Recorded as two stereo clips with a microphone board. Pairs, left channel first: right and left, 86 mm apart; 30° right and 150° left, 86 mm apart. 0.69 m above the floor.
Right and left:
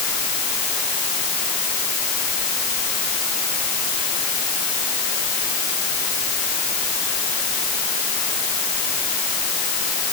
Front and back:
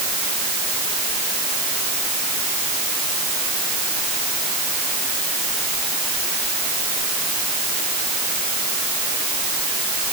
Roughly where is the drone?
I don't hear a drone.